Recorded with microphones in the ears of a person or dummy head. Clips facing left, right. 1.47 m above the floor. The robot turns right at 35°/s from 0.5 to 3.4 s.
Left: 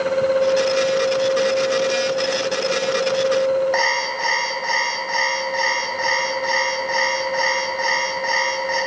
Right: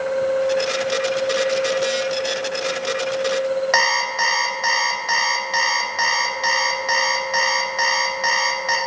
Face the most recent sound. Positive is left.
turn(degrees=-85)